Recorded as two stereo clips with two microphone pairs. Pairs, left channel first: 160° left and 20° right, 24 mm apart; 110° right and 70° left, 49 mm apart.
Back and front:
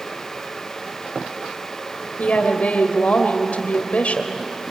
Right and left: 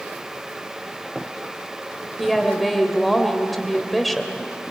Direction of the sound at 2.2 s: 160° left.